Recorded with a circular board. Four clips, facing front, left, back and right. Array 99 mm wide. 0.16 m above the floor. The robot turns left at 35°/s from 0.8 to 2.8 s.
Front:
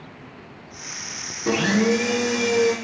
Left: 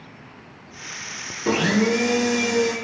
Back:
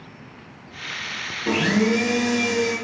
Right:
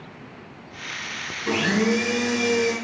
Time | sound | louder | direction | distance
1.5 | a blender | left 2 dB, even | 65° left | 1.0 m